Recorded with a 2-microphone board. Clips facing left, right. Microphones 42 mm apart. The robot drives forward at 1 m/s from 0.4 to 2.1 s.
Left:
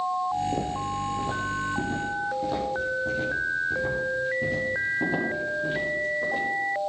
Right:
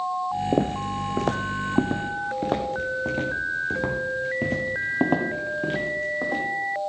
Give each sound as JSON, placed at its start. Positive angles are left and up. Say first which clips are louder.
{"t": 0.5, "sound": "footsteps", "louder": "right 4 dB", "side_deg": -40, "distance_m": 0.8}